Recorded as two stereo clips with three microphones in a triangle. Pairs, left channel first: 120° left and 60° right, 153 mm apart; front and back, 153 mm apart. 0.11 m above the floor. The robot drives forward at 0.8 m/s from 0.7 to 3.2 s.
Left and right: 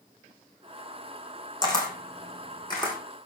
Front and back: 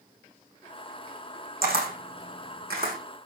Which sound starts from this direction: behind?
A camera shutter, at 1.6 s.